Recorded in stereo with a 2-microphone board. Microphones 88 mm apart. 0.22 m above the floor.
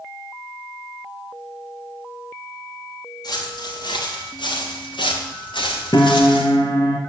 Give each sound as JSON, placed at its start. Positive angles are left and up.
{"t": 3.2, "sound": "footsteps", "side_deg": 50, "distance_m": 3.5}
{"t": 5.9, "sound": "a piano", "side_deg": 60, "distance_m": 2.0}